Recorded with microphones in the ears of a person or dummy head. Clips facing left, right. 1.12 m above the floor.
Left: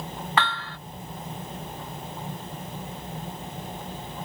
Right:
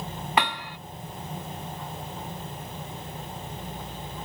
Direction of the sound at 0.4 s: 25° right (ahead or behind).